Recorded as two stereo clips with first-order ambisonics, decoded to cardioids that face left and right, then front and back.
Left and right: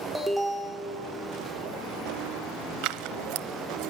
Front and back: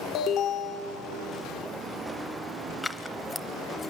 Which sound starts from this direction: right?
Scissors, at 2.8 s.